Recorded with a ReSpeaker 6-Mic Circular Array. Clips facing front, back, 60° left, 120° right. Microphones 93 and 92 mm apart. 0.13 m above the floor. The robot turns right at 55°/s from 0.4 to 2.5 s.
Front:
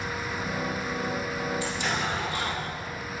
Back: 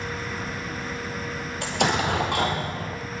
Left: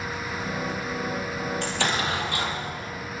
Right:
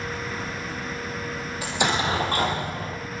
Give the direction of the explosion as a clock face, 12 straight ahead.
7 o'clock.